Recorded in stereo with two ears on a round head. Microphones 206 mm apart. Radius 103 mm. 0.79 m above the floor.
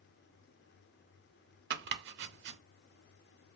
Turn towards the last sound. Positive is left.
turn(degrees=-50)  # may be behind; listen again after turning